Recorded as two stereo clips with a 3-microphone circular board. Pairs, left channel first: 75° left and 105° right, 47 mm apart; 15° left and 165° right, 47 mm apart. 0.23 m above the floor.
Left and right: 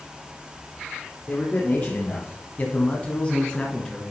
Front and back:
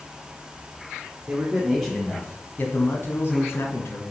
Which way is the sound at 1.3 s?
120° left.